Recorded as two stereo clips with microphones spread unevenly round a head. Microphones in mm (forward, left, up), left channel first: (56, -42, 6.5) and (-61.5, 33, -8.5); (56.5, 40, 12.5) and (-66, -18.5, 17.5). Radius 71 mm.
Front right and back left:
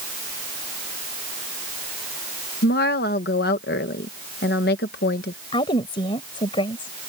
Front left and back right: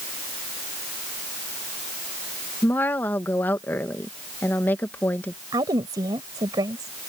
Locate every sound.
2.6 s a woman speaking: 50° right
5.5 s a woman speaking: 90° right